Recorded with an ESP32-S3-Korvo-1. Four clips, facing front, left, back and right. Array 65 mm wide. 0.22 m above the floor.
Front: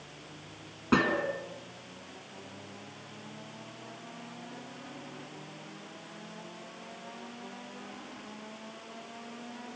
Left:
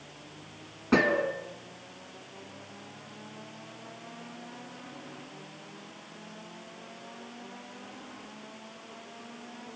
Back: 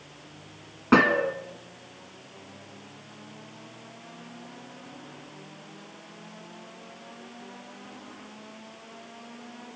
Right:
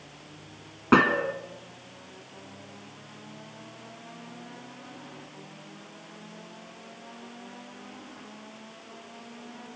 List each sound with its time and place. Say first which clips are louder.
0.9 s a gunshot: right 4 dB, back 7 dB; 125° right, 1.9 m